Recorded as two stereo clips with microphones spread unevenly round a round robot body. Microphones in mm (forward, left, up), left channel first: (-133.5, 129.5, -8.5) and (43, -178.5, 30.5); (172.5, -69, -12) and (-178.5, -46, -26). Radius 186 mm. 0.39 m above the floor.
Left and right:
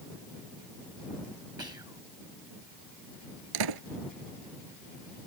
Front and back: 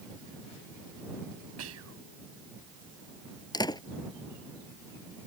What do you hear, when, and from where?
1.6 s whispering: 140° right
3.5 s a door slam: 85° right